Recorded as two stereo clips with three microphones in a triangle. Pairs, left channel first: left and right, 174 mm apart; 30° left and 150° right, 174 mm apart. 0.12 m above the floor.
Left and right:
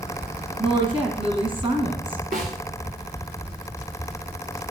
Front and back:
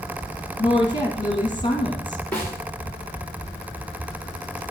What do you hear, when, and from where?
0.6 s a woman speaking: 30° right, 3 m
2.3 s a snare drum: 50° right, 2.5 m